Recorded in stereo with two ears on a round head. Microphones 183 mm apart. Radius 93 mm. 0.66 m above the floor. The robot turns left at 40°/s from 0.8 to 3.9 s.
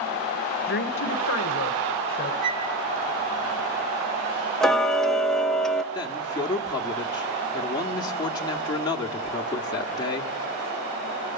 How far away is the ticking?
About 0.8 m.